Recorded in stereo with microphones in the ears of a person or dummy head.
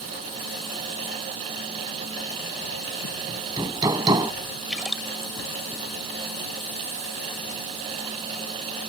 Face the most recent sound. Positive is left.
turn(degrees=0)  # may be behind; listen again after turning